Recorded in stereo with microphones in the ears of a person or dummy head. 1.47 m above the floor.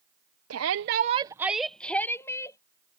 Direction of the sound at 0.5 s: 80° right.